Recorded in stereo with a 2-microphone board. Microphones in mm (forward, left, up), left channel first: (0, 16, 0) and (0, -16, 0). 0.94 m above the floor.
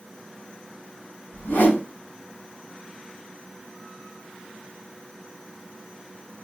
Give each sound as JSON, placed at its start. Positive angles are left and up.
{"t": 1.3, "sound": "a whoosh", "side_deg": 80, "distance_m": 1.5}